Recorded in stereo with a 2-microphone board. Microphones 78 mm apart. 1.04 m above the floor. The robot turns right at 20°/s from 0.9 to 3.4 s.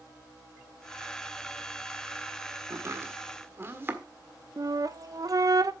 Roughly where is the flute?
Right.